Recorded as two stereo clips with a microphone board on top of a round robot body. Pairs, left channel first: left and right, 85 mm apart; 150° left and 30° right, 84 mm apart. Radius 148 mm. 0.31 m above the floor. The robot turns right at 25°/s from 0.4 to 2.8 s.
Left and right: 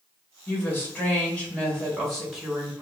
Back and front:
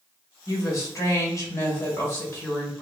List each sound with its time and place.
0.5 s a woman speaking: 135° left, 1.5 m; by 2.8 s 170° right, 1.5 m